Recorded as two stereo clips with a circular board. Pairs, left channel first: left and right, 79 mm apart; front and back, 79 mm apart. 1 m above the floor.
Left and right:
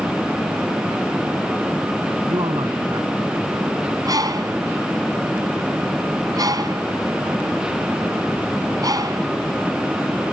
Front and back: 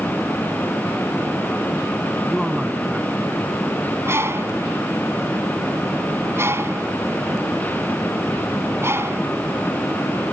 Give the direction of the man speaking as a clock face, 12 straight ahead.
3 o'clock.